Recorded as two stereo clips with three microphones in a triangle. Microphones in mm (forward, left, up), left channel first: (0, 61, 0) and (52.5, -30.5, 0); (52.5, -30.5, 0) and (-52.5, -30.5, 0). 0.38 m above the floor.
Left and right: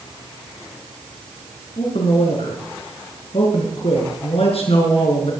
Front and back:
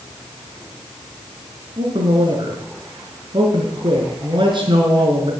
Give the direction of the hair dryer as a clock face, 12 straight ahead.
I don't hear a hair dryer.